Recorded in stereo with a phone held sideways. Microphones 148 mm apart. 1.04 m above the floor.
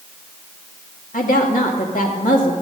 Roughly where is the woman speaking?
Left.